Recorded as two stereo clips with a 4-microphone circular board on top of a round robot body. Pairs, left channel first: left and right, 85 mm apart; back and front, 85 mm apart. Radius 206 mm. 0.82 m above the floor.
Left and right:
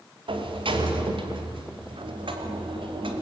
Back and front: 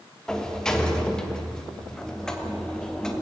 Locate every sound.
0.3 s a sliding door: 95° right, 3 m